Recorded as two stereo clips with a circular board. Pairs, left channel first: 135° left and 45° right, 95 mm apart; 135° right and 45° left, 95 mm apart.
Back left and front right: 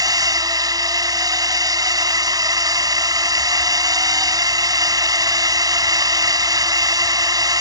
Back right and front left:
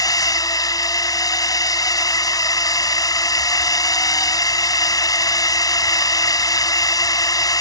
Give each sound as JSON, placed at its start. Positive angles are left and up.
{"t": 0.0, "sound": "a drone", "azimuth_deg": -90}